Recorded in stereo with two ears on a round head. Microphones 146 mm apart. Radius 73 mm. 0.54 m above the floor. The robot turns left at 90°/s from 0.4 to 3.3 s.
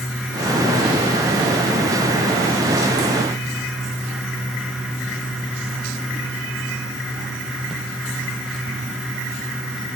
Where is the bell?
No bell in this recording.